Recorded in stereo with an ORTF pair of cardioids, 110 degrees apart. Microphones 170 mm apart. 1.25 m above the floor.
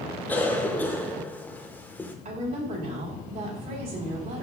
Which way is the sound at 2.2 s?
55° right.